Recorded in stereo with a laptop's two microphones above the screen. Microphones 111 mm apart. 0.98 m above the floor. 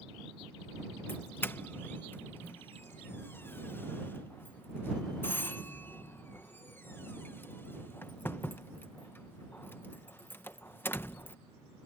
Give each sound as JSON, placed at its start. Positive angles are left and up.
{"t": 1.1, "sound": "a doorbell", "side_deg": 20}